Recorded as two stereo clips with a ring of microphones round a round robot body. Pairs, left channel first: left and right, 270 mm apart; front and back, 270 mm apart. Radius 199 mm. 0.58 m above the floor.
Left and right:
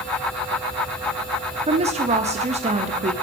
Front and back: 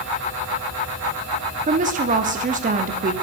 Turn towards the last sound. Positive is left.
turn(degrees=-140)